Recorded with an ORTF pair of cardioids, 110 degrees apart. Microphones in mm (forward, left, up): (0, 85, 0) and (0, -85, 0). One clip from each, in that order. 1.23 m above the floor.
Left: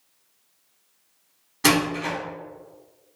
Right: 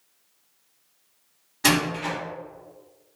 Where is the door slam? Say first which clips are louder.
Left 1 dB; 10° left, 2.0 m.